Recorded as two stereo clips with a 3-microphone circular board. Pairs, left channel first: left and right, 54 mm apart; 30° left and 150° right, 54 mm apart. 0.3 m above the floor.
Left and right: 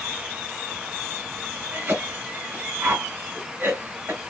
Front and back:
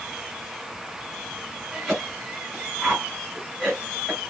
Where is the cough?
70° right, 1.6 m.